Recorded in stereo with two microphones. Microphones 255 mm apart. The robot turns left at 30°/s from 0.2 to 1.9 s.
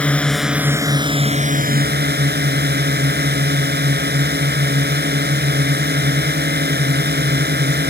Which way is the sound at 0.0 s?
5° left.